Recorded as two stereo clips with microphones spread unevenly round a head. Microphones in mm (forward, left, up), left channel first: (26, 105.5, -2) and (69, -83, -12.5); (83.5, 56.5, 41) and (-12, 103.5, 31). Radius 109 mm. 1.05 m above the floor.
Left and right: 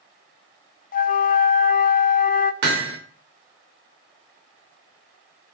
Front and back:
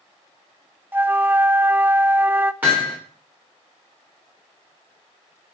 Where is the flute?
85° left, 0.6 m.